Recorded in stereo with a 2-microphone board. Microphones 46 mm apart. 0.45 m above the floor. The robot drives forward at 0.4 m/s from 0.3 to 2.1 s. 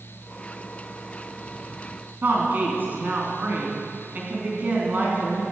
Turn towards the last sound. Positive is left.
turn(degrees=-45)  # may be behind; listen again after turning